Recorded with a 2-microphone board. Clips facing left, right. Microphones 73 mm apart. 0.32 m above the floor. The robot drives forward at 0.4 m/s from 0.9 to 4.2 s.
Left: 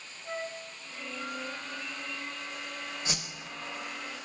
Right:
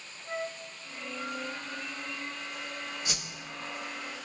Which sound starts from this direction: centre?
A flute, at 0.2 s.